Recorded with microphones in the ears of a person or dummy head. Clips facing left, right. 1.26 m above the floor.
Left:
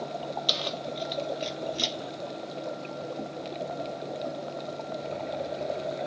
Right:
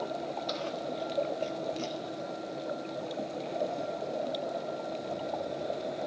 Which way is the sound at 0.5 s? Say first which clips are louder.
Left 1 dB; 40° left (ahead or behind).